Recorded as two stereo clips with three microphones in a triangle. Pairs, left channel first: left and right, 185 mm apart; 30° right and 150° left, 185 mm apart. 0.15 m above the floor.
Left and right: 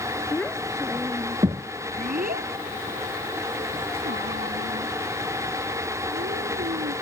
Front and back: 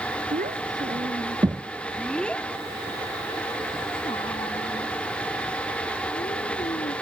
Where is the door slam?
No door slam in this recording.